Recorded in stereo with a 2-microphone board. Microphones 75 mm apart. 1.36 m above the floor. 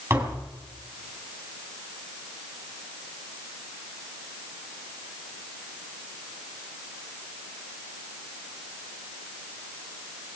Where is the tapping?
30° right (ahead or behind), 4 m.